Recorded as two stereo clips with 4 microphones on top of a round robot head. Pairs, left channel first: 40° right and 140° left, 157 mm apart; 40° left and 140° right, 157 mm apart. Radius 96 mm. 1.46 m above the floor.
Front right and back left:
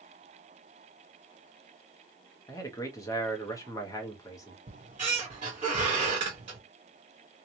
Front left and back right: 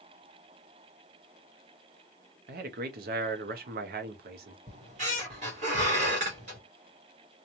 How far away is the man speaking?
About 0.6 m.